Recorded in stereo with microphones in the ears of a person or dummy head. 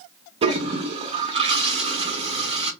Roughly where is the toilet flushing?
Right.